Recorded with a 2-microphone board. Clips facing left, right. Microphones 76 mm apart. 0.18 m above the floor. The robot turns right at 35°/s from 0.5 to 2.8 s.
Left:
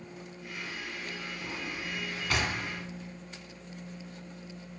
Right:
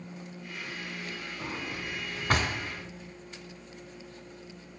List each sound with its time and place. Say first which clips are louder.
1.4 s a drawer: right 3 dB; 40° right (ahead or behind), 0.7 m